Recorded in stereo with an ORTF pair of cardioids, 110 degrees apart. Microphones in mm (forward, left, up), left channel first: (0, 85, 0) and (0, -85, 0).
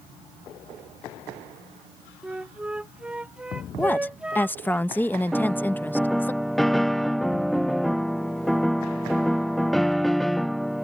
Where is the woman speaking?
10° left.